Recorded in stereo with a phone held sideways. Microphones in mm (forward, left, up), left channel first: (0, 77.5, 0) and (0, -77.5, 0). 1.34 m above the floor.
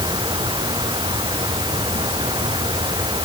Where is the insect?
30° right (ahead or behind).